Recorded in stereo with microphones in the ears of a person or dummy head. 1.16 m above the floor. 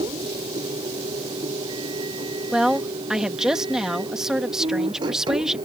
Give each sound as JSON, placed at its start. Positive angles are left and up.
{"t": 0.0, "sound": "a machine running", "side_deg": -25}
{"t": 2.5, "sound": "a woman speaking", "side_deg": -5}